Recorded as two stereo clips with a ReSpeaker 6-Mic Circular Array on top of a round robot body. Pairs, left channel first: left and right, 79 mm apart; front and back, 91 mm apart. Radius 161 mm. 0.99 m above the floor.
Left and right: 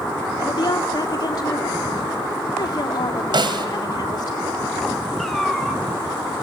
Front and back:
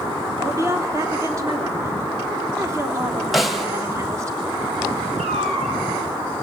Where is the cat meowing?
175° left, 3.5 m.